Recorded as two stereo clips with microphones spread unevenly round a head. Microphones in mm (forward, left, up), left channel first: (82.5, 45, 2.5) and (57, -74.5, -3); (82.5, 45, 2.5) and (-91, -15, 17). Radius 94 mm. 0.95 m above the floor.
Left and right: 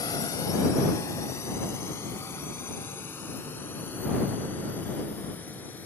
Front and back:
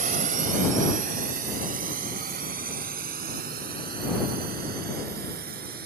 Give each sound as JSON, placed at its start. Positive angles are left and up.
{"t": 0.0, "sound": "a drone", "azimuth_deg": 150}